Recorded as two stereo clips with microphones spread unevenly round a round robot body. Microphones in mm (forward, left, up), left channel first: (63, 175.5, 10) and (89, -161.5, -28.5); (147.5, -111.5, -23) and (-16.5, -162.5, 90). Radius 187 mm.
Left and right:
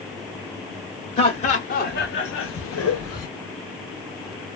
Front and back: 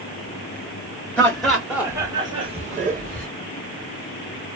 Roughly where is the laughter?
Ahead.